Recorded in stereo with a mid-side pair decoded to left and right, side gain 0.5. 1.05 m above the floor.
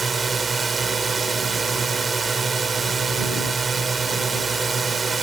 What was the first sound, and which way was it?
A drone, 30° right.